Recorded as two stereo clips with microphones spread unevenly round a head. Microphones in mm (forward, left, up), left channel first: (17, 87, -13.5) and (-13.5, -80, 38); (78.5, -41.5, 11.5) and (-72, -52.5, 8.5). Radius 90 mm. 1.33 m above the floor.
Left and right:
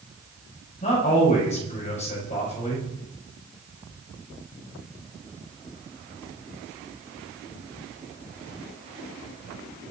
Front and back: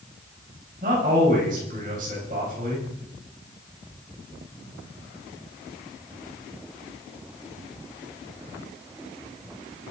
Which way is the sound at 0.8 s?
135° left.